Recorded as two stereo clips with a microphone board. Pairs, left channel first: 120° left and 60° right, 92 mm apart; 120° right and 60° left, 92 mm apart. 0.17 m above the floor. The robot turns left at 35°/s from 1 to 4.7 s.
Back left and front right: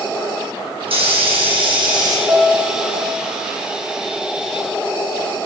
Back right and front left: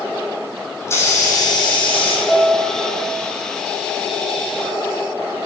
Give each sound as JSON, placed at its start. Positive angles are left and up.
{"t": 0.8, "sound": "a hiss", "azimuth_deg": -60, "distance_m": 4.0}
{"t": 2.3, "sound": "a piano", "azimuth_deg": -60, "distance_m": 3.5}